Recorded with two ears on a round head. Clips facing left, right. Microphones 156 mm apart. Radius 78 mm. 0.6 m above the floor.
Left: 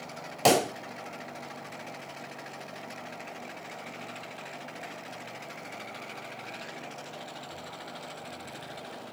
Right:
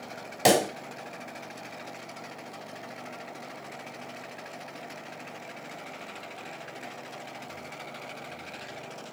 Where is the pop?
10° right (ahead or behind), 1.6 m.